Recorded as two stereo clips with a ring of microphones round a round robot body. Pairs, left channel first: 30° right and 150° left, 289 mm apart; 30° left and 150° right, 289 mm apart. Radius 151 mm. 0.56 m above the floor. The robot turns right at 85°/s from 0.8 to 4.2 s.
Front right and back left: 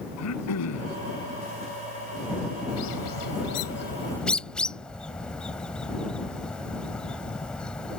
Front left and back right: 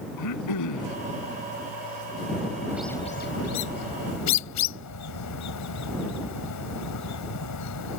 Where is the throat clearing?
5° left; by 1.0 s 20° left.